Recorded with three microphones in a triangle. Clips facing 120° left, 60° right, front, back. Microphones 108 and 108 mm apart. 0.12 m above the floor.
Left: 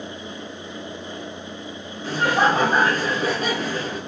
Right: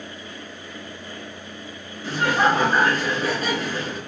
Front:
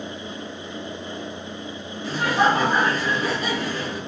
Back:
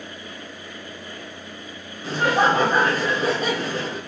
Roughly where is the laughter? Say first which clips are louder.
Left 1 dB, back 1 dB; behind.